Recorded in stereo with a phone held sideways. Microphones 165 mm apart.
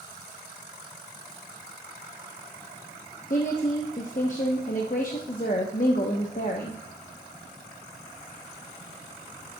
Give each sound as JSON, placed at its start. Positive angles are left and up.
{"t": 3.3, "sound": "a woman speaking", "side_deg": 55, "distance_m": 0.8}